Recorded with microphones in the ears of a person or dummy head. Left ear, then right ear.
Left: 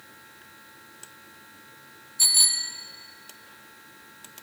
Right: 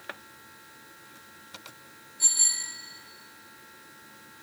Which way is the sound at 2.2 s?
70° left (ahead or behind).